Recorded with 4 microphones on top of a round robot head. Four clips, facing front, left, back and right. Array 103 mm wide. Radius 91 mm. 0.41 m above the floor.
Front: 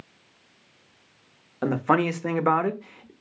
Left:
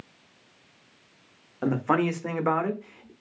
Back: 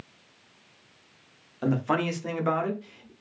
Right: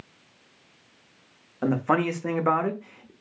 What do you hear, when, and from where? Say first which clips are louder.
1.6 s a man speaking: right 1 dB, front 4 dB; straight ahead, 0.9 m